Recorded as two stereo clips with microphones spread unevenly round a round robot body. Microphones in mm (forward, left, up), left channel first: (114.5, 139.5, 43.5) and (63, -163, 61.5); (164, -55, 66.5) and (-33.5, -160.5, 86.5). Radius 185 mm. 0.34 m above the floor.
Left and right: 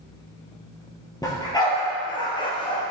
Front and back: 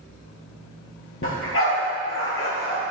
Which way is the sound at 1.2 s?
5° left.